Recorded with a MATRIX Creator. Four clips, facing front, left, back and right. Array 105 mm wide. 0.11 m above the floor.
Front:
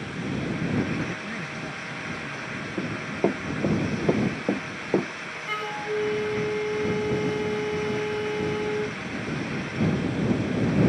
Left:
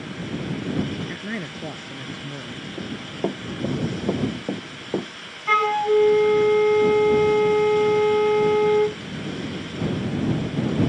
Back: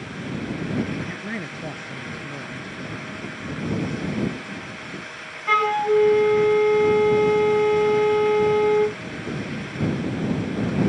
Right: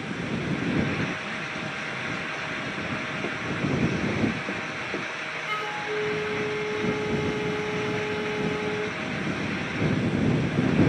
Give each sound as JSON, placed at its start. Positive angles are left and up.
{"t": 1.1, "sound": "a man speaking", "azimuth_deg": 130}
{"t": 2.8, "sound": "running footsteps", "azimuth_deg": 30}
{"t": 5.5, "sound": "a flute", "azimuth_deg": 135}